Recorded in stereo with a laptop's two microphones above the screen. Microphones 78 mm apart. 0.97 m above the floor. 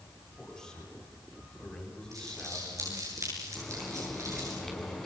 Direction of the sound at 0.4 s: 10° left (ahead or behind).